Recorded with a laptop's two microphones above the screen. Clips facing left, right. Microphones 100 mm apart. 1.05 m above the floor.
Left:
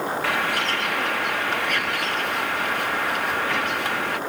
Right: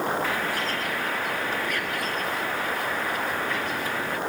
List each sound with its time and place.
0.2 s a bird: 70° left (ahead or behind)